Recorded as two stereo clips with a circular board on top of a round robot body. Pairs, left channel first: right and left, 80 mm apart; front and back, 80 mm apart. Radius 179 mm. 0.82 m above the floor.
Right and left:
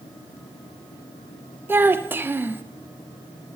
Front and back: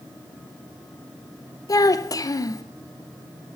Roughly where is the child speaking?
Ahead left.